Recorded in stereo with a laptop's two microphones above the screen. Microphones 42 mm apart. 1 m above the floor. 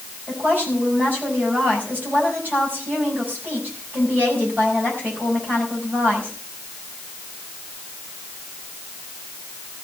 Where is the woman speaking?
45° right (ahead or behind), 5 m.